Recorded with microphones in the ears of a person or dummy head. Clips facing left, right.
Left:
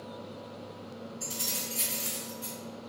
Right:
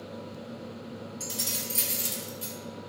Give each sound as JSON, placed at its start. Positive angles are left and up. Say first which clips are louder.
{"t": 1.2, "sound": "keys jangling", "louder": "right 2 dB", "side_deg": -65, "distance_m": 1.1}